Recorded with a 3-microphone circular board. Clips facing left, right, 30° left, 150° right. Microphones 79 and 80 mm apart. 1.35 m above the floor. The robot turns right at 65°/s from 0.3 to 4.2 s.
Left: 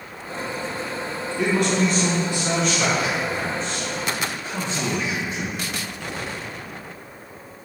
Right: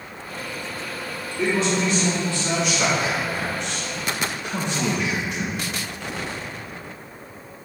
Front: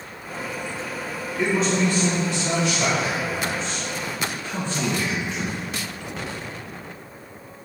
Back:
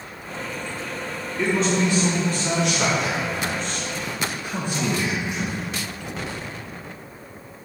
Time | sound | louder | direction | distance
1.4 | a man speaking | left 1 dB, even | 100° left | 1.6 m